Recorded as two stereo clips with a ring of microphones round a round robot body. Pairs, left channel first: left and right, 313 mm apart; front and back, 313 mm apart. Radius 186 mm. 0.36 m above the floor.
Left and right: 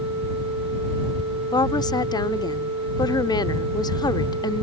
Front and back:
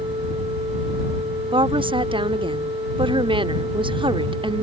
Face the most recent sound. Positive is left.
turn(degrees=140)